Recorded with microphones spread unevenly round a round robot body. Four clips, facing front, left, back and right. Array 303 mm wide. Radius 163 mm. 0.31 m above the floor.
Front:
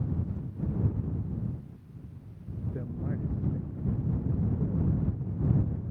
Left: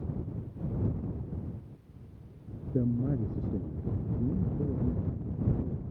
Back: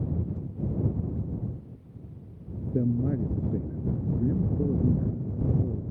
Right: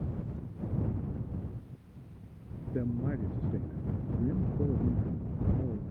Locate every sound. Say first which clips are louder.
2.7 s a man speaking: left 4 dB, back 11 dB; 160° left; by 5.8 s 165° right